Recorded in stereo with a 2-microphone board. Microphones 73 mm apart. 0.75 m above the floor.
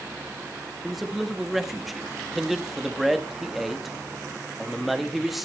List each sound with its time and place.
0.8 s a man speaking: centre (ahead or behind), 1.4 m